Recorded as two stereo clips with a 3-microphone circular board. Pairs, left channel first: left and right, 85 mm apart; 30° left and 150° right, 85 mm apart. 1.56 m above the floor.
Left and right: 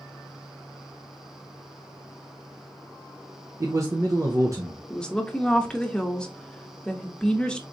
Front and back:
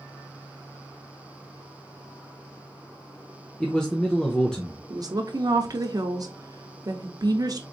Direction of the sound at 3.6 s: 50° right.